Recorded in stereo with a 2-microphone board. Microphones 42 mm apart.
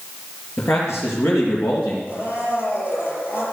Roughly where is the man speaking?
Left.